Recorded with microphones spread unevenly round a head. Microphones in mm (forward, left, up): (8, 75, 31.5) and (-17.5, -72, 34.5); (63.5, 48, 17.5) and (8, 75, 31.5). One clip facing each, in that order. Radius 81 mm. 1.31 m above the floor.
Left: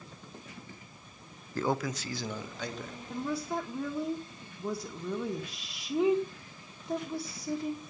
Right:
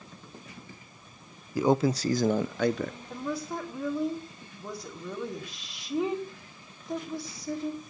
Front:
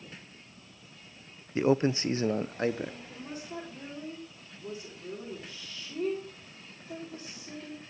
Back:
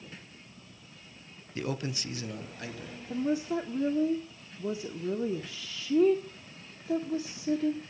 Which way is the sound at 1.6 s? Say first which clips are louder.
Right 7 dB, front 9 dB; 25° right.